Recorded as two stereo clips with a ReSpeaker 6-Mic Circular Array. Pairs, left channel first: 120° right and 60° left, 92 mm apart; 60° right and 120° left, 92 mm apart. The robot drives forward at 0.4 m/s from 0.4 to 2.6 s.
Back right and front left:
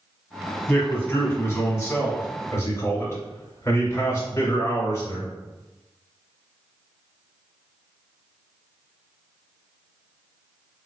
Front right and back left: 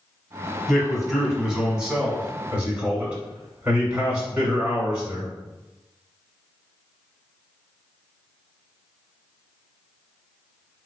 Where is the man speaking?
145° right, 1.1 m; by 5.3 s 165° right, 1.5 m.